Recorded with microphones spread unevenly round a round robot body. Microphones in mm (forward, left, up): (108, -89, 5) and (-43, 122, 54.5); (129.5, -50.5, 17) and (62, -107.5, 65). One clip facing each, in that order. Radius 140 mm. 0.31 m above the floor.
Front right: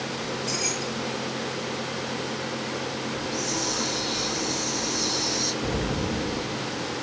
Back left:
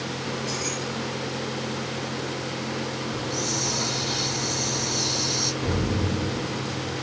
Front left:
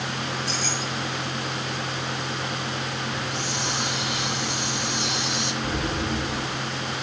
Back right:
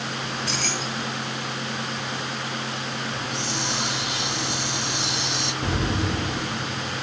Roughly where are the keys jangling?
Right.